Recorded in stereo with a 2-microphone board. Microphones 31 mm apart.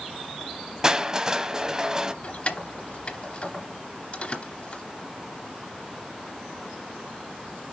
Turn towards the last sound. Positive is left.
turn(degrees=35)  # may be behind; listen again after turning